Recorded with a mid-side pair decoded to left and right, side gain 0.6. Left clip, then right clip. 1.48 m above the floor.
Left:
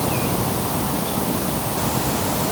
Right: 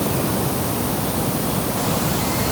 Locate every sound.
Only background noise.